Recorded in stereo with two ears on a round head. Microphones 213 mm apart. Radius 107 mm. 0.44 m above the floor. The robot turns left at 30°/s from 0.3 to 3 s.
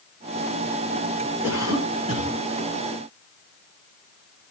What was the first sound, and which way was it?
A cough, 10° right (ahead or behind).